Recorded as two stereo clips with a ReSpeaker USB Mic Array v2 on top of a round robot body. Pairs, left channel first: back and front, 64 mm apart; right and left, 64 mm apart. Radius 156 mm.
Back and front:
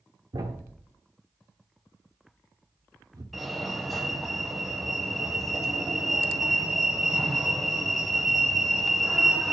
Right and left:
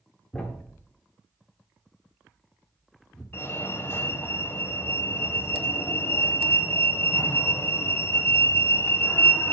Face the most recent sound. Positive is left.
turn(degrees=-90)